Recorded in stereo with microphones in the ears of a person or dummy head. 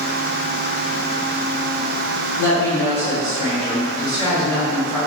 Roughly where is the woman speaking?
Left.